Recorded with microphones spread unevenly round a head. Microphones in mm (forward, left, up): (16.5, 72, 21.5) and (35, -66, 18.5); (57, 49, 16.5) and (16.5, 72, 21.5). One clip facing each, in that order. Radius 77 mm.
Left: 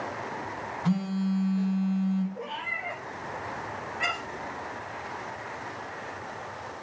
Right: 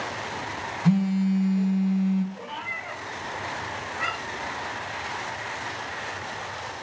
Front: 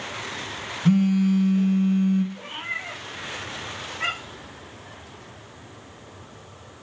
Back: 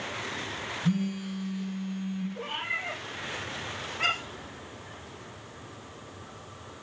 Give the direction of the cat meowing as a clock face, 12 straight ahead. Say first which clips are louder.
Even, front 1 dB; 7 o'clock.